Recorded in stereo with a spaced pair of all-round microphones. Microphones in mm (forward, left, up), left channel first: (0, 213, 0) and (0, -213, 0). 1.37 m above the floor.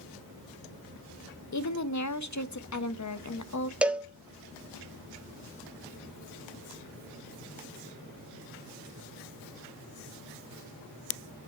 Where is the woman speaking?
40° left (ahead or behind), 0.6 m.